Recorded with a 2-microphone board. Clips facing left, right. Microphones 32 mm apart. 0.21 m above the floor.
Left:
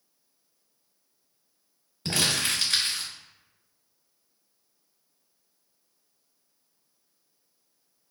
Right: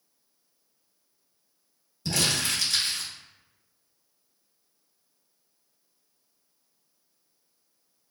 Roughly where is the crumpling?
Left.